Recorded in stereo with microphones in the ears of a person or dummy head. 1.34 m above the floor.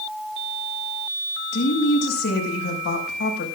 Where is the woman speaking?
70° left (ahead or behind), 6 m.